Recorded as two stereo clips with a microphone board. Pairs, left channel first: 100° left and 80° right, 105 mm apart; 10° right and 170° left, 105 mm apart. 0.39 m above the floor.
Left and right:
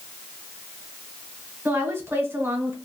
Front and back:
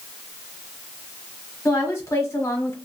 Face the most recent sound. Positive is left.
turn(degrees=-40)